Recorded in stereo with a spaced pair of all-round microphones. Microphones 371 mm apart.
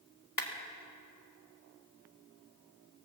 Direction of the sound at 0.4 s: 70° left (ahead or behind).